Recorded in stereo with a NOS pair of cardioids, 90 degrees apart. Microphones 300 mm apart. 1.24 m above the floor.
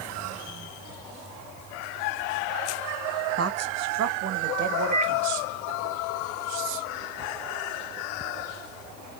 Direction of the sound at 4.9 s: 65° right.